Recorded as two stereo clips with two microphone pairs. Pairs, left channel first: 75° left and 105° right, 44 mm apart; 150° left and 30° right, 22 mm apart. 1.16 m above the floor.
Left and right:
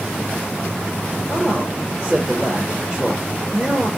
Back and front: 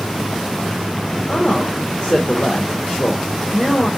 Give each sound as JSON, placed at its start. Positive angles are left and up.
{"t": 1.3, "sound": "a man speaking", "azimuth_deg": 180, "distance_m": 1.2}